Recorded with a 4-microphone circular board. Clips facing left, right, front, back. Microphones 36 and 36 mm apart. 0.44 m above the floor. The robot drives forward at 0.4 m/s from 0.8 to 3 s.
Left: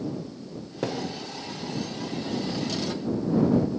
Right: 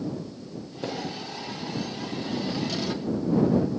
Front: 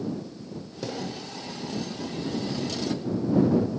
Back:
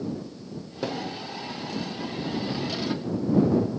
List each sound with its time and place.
0.8 s a thud: 110° left, 6 m; by 1.1 s 115° left, 6 m